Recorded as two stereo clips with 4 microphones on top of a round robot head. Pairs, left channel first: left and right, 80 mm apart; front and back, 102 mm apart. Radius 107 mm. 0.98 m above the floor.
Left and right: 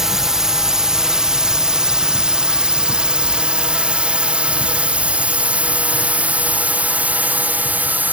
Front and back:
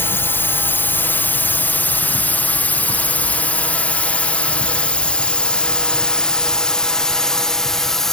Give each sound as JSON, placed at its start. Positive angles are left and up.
{"t": 0.0, "sound": "a drone", "azimuth_deg": -15}